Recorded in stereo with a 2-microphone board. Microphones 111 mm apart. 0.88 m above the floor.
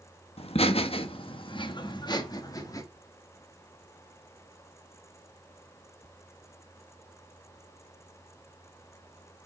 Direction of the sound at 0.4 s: 65° left (ahead or behind).